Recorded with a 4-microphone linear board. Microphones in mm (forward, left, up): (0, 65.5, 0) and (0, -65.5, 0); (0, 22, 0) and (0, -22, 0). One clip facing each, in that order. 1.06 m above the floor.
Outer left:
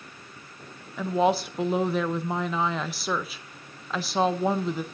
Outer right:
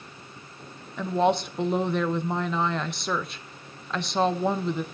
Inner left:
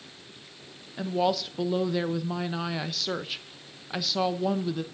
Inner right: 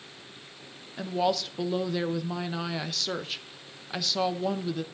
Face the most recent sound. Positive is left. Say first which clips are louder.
# even, inner left 1 dB
turn(degrees=5)  # may be behind; listen again after turning